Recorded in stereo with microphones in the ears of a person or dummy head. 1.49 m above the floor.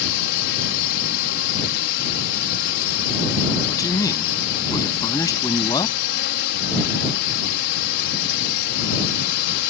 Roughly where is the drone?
Left.